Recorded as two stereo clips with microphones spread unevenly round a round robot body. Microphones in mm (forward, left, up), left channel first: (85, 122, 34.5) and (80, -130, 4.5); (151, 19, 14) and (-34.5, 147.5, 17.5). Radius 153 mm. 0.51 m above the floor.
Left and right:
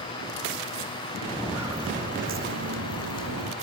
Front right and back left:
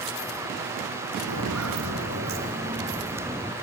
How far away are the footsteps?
About 1.5 m.